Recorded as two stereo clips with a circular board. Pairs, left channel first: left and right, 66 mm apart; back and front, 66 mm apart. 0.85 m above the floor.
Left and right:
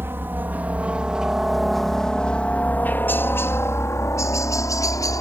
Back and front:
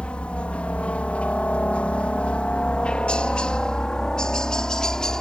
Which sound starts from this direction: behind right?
A helicopter, at 0.0 s.